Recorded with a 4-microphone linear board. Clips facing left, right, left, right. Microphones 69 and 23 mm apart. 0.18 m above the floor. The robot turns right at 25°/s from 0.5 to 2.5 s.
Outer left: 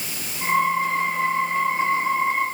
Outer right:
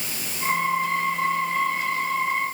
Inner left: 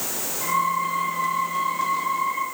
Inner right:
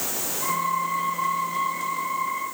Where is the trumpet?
I don't hear a trumpet.